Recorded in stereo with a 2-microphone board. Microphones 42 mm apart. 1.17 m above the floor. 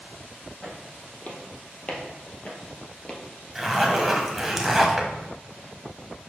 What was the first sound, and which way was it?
Footsteps, 45° left (ahead or behind).